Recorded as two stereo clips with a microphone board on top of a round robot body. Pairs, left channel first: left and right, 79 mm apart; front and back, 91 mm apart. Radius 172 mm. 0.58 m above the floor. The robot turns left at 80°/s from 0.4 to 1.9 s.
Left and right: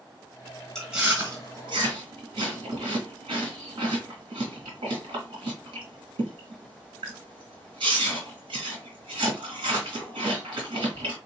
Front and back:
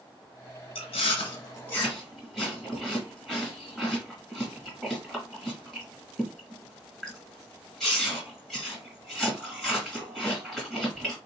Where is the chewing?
5° left, 1.3 m; by 11.2 s 90° right, 1.3 m.